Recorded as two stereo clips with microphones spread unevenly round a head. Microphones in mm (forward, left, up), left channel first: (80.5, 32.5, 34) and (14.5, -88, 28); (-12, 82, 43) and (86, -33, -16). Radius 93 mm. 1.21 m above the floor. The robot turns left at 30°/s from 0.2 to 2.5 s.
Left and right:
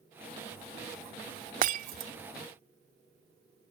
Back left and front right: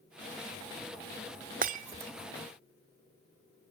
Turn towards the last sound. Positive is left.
turn(degrees=-130)